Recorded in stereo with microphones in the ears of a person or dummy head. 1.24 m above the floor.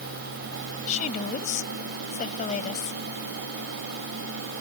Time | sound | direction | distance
0.9 | a woman speaking | 40° left (ahead or behind) | ?